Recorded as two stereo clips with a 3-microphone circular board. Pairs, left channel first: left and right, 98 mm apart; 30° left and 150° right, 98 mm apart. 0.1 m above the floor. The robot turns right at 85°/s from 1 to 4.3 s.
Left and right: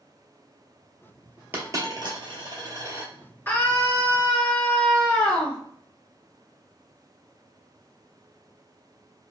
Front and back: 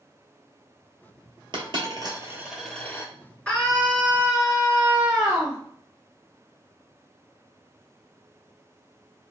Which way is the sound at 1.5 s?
155° right.